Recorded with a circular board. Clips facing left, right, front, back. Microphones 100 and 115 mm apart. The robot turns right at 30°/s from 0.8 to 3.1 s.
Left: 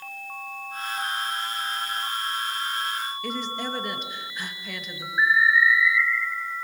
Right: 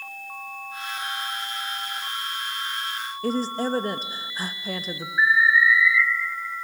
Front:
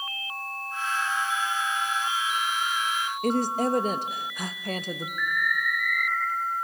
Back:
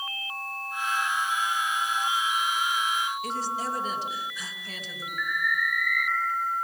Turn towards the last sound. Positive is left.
turn(degrees=155)